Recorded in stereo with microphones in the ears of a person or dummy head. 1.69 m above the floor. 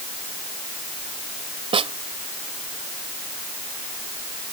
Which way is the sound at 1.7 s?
20° right (ahead or behind).